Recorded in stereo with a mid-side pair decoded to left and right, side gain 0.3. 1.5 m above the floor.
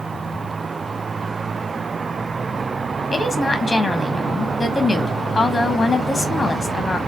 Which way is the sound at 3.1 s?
45° left.